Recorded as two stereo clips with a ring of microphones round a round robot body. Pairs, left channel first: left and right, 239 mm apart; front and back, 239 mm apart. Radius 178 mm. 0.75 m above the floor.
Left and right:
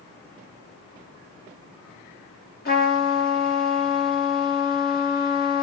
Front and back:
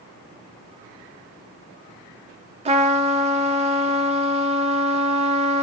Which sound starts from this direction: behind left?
A trumpet, at 2.6 s.